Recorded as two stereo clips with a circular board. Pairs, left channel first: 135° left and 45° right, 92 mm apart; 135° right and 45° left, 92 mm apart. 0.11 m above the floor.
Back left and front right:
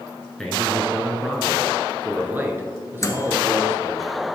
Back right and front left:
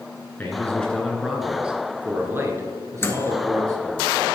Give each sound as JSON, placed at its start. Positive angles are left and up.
{"t": 0.4, "sound": "a man speaking", "azimuth_deg": -150, "distance_m": 1.6}
{"t": 3.0, "sound": "a microwave", "azimuth_deg": 175, "distance_m": 1.2}